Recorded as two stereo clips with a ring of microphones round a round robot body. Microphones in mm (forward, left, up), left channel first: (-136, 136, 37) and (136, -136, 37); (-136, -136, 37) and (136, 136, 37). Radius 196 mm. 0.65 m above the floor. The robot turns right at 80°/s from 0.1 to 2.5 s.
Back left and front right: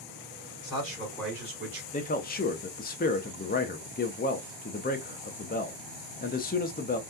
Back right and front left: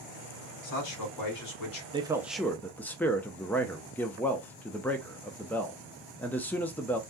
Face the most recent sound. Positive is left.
turn(degrees=145)